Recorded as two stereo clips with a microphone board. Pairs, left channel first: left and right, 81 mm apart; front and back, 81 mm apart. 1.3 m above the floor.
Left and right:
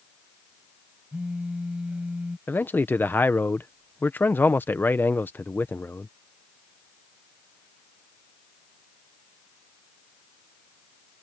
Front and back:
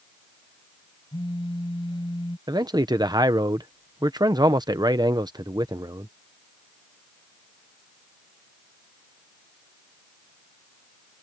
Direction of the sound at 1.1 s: 15° right.